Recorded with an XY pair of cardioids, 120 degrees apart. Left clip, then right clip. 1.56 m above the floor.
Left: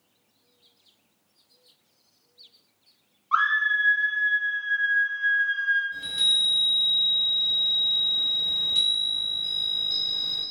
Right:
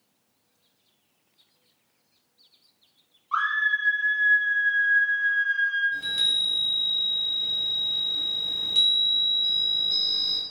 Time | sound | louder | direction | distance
3.3 | a scream | left 2 dB | 35° left | 0.6 m
5.9 | a chime | left 1 dB | 20° right | 0.9 m